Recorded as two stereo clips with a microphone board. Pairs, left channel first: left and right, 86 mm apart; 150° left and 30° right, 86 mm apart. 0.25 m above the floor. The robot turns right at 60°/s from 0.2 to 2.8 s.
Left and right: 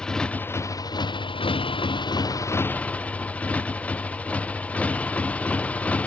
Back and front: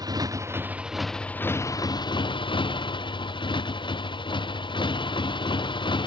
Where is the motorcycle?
10° left; by 6.1 s 165° left.